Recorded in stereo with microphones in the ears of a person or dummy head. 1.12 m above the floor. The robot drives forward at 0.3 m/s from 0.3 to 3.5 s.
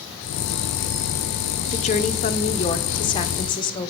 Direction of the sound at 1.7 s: 30° left (ahead or behind).